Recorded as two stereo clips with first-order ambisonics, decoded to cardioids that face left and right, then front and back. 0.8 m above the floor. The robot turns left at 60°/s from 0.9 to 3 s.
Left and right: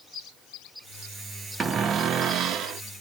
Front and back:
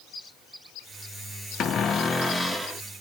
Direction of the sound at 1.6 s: 30° right.